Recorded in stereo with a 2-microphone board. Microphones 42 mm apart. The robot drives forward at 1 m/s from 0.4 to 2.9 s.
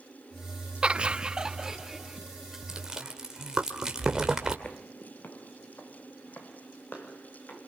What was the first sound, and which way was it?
Laughter, 25° right (ahead or behind).